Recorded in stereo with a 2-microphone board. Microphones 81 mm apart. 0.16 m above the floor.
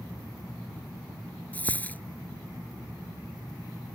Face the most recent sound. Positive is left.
turn(degrees=20)  # may be behind; listen again after turning